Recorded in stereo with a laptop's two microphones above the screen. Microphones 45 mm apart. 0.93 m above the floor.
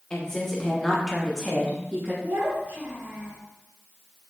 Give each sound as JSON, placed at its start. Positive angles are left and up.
{"t": 0.1, "sound": "a woman speaking", "side_deg": 15, "distance_m": 1.0}
{"t": 2.2, "sound": "a child speaking", "side_deg": -35, "distance_m": 0.9}